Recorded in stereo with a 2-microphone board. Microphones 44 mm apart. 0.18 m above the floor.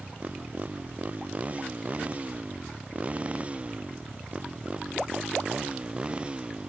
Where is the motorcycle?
35° right (ahead or behind); by 6.7 s 20° right (ahead or behind).